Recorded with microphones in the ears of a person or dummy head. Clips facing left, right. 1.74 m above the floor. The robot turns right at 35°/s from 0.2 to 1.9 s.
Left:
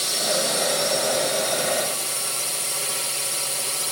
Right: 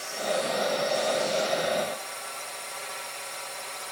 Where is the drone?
65° left; by 3.9 s 125° left.